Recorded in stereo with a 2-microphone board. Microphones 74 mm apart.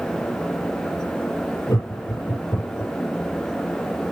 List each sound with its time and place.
1.7 s laughter: 55° left (ahead or behind), 3 m